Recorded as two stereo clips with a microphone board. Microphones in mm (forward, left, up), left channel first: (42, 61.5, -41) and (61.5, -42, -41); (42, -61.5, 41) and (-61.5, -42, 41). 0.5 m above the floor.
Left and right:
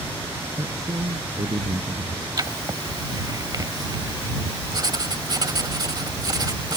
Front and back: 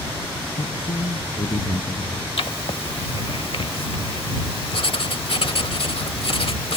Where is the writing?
30° right.